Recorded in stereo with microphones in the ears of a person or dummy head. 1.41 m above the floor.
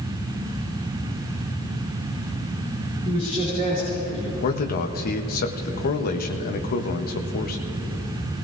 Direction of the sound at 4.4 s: 50° left (ahead or behind).